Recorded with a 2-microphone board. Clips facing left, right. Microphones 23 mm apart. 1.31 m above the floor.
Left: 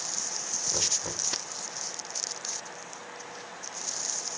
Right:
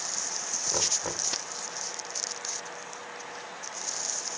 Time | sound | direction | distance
0.7 | knocking | 30° right (ahead or behind) | ?